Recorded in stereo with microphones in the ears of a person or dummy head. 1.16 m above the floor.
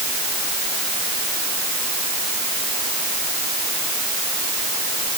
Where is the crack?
No crack in this recording.